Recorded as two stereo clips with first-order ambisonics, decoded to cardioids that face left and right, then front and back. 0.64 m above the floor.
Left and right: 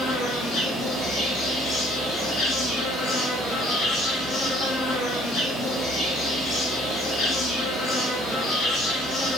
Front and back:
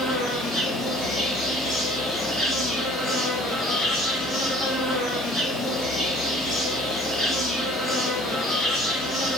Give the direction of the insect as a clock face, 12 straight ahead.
8 o'clock.